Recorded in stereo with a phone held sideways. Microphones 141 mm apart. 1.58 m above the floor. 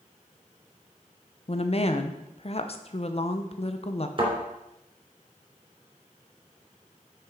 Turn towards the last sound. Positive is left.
turn(degrees=-40)  # may be behind; listen again after turning